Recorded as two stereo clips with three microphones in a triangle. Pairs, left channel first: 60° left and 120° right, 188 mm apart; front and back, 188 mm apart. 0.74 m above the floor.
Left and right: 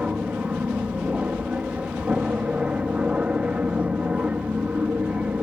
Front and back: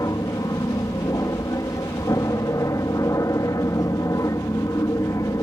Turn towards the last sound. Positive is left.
turn(degrees=-45)